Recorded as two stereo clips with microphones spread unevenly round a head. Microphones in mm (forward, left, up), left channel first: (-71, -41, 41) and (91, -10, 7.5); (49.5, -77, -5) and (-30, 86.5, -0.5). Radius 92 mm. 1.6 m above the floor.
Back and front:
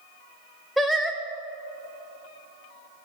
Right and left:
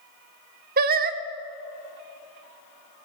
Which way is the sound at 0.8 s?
110° left.